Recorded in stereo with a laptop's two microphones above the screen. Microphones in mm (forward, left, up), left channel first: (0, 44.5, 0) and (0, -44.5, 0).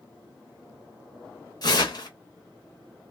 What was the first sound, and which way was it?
Tearing paper, 50° left (ahead or behind).